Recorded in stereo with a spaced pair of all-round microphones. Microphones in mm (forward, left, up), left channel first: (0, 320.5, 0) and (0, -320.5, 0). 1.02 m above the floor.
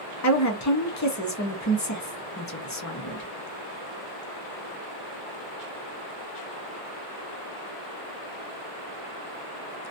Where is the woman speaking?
25° left (ahead or behind), 0.8 m.